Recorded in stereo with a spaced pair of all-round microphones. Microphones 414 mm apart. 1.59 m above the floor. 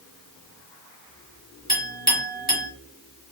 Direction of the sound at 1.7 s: 10° right (ahead or behind).